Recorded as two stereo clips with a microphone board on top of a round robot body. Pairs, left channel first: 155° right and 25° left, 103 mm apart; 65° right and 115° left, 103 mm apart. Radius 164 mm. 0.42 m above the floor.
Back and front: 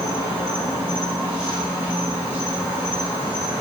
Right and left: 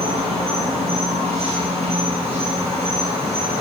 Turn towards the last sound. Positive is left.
turn(degrees=95)